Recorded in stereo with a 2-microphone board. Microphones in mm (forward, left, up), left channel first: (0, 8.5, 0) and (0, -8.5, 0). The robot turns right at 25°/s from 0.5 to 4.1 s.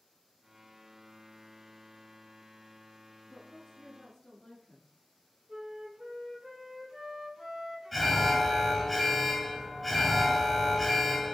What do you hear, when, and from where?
3.3 s a woman speaking: 35° left (ahead or behind), 1.4 m
5.5 s a flute: 25° right (ahead or behind), 1.4 m
7.9 s an alarm: centre (ahead or behind), 1.0 m